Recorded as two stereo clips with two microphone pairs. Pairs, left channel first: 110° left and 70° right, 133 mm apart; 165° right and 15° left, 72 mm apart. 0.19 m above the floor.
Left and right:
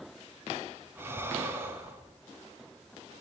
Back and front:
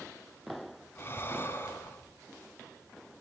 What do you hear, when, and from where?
0.9 s breathing: 130° right, 2 m